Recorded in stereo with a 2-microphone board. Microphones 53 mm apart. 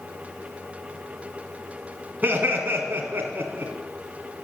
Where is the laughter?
35° right (ahead or behind), 2 m.